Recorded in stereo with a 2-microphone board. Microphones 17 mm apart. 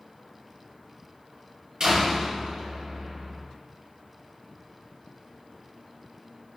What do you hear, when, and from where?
1.8 s a door slam: 40° right (ahead or behind), 5.5 m